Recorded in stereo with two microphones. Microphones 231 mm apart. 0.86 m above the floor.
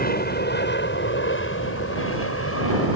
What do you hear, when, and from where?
0.0 s an aircraft: 40° left (ahead or behind); by 3.0 s 70° left (ahead or behind)